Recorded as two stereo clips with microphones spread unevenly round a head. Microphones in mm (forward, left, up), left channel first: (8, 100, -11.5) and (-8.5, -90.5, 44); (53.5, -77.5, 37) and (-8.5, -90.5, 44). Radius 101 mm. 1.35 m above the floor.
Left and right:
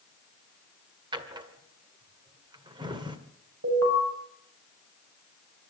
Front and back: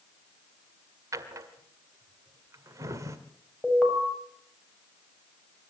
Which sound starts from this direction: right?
An alarm, at 3.6 s.